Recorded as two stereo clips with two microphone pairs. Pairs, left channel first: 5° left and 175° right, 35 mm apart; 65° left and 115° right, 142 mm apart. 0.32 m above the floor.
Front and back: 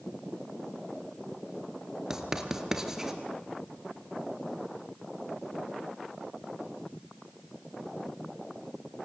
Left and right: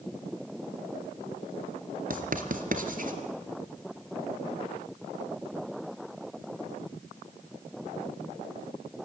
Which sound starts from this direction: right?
Writing, at 2.1 s.